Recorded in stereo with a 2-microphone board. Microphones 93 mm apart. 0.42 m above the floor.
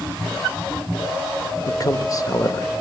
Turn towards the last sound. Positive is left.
turn(degrees=40)  # may be behind; listen again after turning